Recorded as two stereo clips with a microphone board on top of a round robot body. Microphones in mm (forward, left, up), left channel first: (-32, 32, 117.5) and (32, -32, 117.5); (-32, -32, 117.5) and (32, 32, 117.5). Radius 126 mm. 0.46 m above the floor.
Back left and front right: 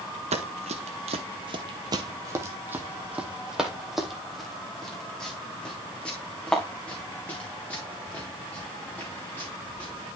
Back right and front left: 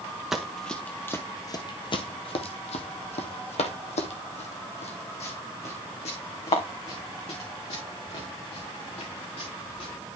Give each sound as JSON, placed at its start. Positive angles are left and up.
{"t": 0.3, "sound": "running footsteps", "azimuth_deg": -40, "distance_m": 1.0}